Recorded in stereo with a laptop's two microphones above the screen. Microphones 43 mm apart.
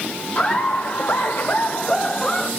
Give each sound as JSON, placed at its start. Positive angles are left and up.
{"t": 0.3, "sound": "laughter", "side_deg": 40, "distance_m": 1.3}